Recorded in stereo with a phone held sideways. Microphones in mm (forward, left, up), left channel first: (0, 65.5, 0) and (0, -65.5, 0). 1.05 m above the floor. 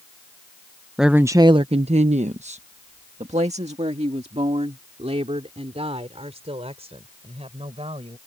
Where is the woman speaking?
5° right (ahead or behind); by 8.2 s 50° right (ahead or behind).